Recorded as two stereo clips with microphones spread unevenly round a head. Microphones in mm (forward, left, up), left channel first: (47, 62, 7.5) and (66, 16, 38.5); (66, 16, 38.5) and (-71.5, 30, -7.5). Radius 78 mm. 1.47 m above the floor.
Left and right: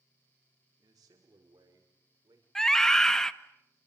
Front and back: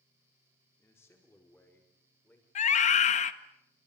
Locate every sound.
0.8 s a man speaking: 80° right, 4 m; by 2.5 s 85° right, 6 m
2.5 s a scream: 25° left, 1.8 m